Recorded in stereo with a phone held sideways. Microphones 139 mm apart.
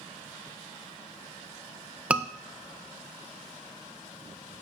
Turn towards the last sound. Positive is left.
turn(degrees=-10)  # may be behind; listen again after turning